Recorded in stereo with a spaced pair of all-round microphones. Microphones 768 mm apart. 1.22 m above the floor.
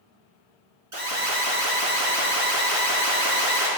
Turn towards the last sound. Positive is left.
turn(degrees=-45)  # may be behind; listen again after turning